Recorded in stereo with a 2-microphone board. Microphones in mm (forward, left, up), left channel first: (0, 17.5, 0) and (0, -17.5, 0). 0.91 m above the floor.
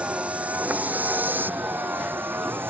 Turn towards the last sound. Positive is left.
turn(degrees=-90)